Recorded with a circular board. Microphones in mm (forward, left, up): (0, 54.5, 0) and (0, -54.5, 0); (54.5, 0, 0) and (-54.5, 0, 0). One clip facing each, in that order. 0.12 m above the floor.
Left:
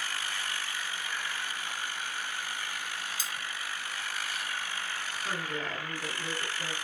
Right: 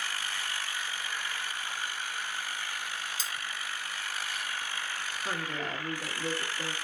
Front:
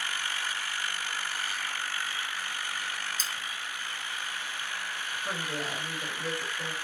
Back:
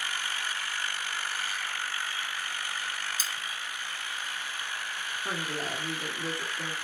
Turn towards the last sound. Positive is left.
turn(degrees=-155)